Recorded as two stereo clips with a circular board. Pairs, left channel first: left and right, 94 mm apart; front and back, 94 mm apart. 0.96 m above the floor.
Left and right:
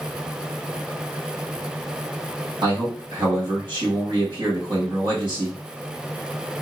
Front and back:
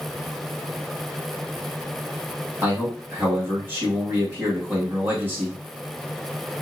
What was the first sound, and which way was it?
A man speaking, 115° right.